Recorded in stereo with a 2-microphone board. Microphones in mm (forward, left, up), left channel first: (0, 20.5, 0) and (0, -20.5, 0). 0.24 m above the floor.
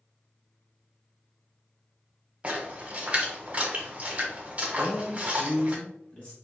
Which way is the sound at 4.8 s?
35° left (ahead or behind).